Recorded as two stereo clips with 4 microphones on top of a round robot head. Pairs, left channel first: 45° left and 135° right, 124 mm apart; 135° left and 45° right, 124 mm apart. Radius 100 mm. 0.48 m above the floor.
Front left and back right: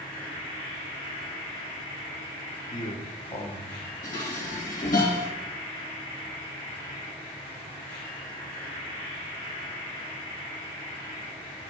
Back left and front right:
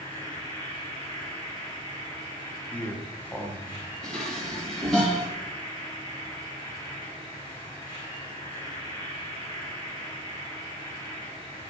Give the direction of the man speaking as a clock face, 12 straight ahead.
10 o'clock.